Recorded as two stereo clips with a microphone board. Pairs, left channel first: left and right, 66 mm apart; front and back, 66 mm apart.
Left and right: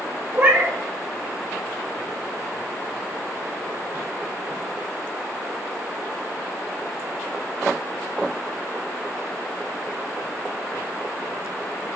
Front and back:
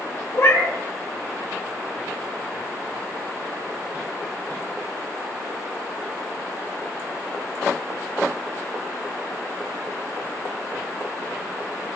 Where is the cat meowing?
35° right, 0.6 m.